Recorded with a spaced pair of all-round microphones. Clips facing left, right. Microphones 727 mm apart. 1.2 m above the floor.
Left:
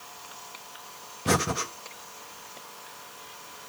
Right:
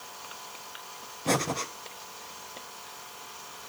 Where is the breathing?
45° left (ahead or behind), 0.8 m.